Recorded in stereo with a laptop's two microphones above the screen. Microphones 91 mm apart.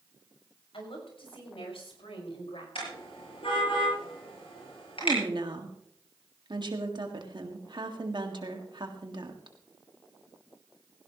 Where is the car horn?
75° left (ahead or behind), 7.5 m.